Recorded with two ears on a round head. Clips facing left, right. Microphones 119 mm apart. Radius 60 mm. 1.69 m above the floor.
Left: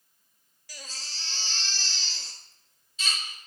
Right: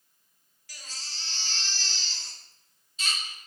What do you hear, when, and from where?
0.7 s a baby crying: 80° left, 4.5 m